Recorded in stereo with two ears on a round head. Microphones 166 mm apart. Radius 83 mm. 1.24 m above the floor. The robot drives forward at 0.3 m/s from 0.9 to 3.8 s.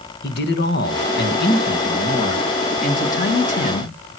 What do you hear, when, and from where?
0.2 s a man speaking: 65° left (ahead or behind), 1.7 m; by 4.0 s 45° left (ahead or behind), 2 m